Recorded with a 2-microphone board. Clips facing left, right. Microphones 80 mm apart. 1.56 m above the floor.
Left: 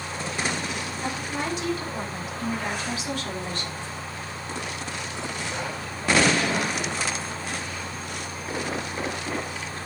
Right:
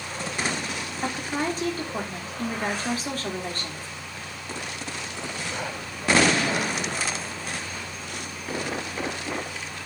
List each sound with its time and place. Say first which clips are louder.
1.0 s a woman speaking: right 3 dB; 40° right (ahead or behind), 3.5 m